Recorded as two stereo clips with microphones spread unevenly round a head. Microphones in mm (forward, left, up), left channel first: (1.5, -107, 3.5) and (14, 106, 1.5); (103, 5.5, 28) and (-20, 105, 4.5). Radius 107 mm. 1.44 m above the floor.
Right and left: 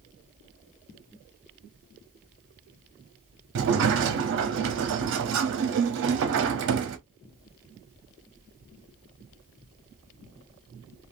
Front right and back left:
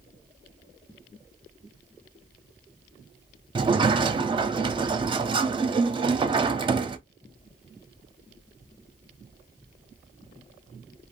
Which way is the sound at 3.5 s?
95° left.